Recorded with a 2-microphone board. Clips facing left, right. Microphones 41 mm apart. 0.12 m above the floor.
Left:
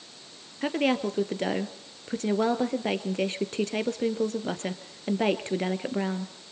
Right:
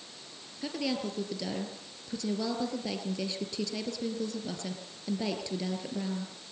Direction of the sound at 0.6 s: 45° left (ahead or behind).